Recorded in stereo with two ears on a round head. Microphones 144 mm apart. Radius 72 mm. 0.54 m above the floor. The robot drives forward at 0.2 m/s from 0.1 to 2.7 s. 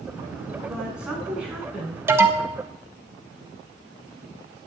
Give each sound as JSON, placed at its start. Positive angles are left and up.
{"t": 0.7, "sound": "a woman speaking", "side_deg": -5, "distance_m": 5.5}
{"t": 2.1, "sound": "an alarm", "side_deg": -15, "distance_m": 1.6}